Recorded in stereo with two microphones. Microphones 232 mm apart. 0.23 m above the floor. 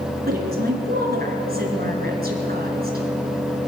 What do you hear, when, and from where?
0.3 s a woman speaking: 40° right (ahead or behind), 3 m